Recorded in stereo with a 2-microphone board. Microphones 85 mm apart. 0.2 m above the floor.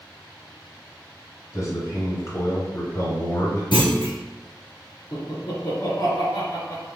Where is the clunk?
70° left (ahead or behind), 1.4 m.